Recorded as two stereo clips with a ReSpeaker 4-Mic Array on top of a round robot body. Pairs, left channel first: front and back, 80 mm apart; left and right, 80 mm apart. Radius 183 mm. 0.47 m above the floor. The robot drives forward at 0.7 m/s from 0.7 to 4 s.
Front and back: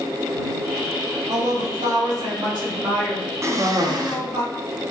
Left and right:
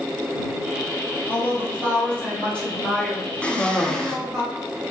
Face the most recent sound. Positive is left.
turn(degrees=170)